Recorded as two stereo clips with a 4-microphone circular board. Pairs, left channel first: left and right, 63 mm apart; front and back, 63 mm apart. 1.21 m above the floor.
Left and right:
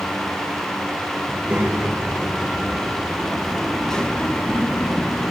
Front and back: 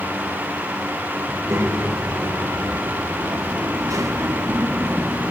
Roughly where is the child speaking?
Behind right.